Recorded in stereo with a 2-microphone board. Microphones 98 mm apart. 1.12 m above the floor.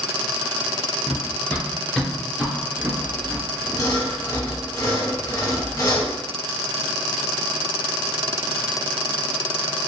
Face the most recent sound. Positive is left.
turn(degrees=35)  # may be behind; listen again after turning